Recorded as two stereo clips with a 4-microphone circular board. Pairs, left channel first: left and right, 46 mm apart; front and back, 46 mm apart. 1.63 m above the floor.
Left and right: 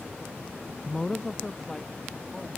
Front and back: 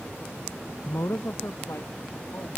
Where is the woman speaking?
10° left.